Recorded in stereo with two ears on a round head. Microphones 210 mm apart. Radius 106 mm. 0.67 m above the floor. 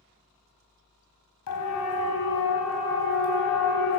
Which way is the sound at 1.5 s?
80° left.